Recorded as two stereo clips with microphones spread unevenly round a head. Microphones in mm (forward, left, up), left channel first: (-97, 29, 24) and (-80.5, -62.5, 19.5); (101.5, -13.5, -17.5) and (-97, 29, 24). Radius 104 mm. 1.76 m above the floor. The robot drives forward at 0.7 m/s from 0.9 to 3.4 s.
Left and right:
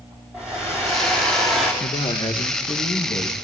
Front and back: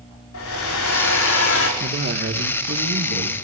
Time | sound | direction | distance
0.3 | a hair dryer | 5° left | 5.5 m
1.8 | a man speaking | 125° left | 2.0 m